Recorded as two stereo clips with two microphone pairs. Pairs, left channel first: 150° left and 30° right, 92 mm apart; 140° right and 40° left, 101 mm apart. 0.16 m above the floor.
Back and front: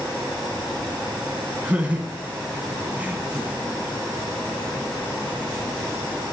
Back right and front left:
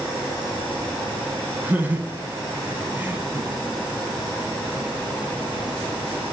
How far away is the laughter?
About 1.0 m.